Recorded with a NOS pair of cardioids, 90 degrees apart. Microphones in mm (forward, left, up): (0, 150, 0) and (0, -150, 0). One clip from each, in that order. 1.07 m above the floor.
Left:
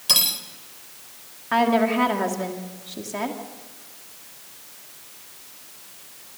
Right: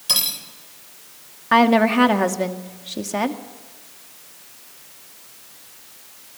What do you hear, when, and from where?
0.1 s cutlery clinking: 5° left, 3 m
1.5 s a woman speaking: 45° right, 2 m